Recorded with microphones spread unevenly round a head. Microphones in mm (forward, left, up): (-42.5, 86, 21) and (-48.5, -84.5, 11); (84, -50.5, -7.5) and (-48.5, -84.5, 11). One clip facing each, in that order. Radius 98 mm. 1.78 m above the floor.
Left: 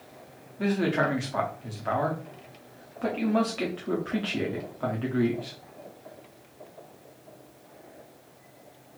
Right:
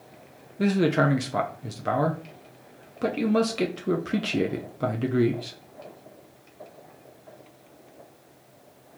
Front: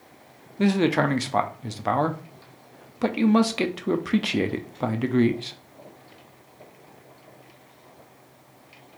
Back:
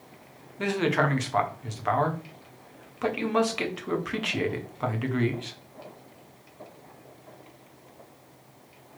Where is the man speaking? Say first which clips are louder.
Right 4 dB, front 4 dB; 40° right, 0.7 m.